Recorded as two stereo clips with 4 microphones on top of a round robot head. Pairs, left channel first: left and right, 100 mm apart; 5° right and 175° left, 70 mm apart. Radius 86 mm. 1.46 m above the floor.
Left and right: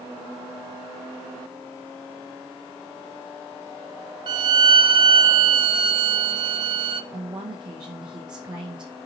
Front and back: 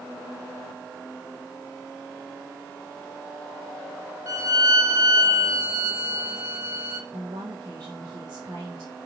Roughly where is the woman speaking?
Behind right.